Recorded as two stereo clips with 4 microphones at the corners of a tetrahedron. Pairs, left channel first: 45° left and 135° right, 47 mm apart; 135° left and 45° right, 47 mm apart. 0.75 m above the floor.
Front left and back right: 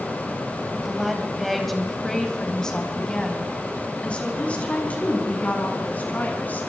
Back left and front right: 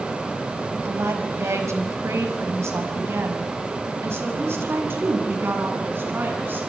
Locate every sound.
0.7 s a woman speaking: 55° right, 4 m; by 6.6 s 5° right, 7 m